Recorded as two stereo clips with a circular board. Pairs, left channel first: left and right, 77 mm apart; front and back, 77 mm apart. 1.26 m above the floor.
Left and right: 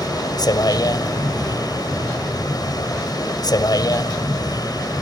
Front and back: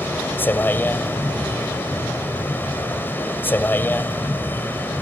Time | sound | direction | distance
0.0 | a vehicle | 65° left | ?